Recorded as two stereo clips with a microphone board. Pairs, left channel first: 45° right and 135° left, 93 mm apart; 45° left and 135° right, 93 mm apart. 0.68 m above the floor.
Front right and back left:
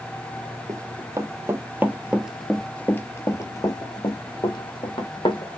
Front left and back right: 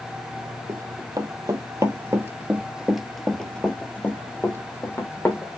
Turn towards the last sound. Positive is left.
turn(degrees=-15)